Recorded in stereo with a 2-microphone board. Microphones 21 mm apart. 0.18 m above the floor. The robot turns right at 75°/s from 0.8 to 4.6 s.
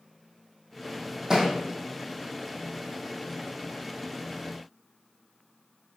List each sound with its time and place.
1.3 s a thud: 20° right (ahead or behind), 3 m; by 1.5 s 40° right (ahead or behind), 3 m